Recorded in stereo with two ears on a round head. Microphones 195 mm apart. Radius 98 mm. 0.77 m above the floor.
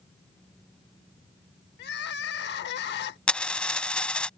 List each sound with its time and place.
1.8 s crying: 50° left (ahead or behind)
3.3 s a dropped coin: 5° left (ahead or behind)